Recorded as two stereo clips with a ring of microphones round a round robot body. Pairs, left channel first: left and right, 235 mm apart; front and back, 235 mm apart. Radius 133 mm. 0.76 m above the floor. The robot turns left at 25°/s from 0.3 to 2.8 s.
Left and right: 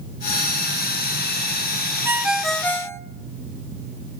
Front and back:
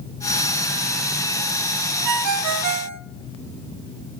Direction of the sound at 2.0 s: 170° right.